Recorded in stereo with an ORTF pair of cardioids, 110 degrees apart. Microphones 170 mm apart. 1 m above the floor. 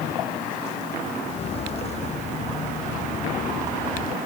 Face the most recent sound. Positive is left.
turn(degrees=50)